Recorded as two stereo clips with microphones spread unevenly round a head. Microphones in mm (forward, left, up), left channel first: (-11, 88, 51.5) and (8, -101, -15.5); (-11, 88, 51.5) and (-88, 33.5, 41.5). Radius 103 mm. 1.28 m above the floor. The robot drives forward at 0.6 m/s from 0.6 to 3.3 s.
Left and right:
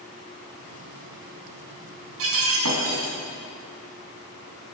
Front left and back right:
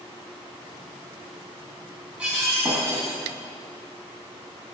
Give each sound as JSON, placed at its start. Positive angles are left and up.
{"t": 2.2, "sound": "breaking glass", "azimuth_deg": -60, "distance_m": 3.5}